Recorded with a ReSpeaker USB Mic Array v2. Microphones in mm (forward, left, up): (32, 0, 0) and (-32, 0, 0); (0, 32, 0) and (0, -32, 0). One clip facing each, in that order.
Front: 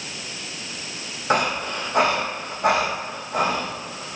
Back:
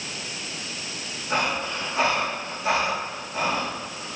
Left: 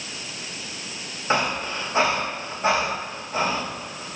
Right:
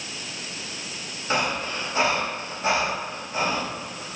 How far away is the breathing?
About 4 m.